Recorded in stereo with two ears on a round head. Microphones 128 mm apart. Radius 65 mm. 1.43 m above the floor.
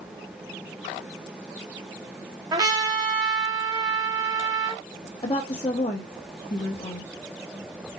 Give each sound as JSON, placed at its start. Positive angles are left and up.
{"t": 2.5, "sound": "a trumpet", "side_deg": -25, "distance_m": 0.9}
{"t": 5.2, "sound": "a woman speaking", "side_deg": 30, "distance_m": 0.9}